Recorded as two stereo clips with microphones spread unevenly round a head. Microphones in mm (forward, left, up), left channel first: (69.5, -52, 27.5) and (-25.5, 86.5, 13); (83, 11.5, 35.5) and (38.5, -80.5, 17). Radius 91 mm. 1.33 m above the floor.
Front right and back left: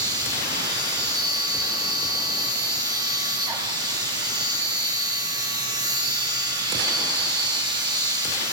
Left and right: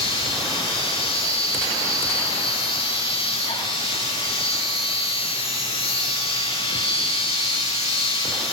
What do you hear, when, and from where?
0.0 s a machine running: 55° left, 8.5 m